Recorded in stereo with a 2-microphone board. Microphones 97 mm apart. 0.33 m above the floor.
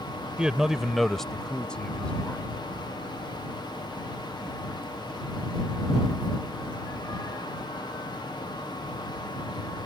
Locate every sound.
0.4 s a man speaking: 10° right (ahead or behind); by 2.5 s 15° left (ahead or behind)